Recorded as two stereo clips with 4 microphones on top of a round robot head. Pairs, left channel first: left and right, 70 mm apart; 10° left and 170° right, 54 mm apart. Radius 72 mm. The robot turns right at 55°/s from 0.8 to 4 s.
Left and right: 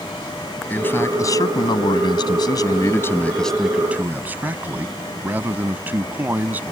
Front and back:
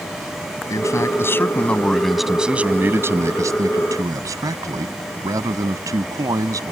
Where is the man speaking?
25° left; by 6.7 s 155° right.